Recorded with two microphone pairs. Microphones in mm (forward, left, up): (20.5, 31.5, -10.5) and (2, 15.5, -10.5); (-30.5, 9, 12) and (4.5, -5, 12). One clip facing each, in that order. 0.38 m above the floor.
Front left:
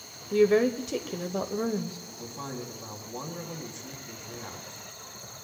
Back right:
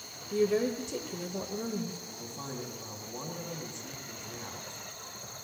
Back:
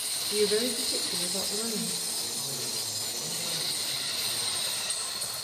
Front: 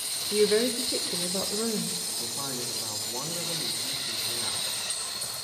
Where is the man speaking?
25° right, 2.5 m.